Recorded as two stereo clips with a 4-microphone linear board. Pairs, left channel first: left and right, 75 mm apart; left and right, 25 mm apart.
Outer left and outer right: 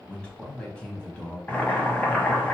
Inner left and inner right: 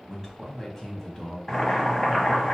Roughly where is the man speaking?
Centre.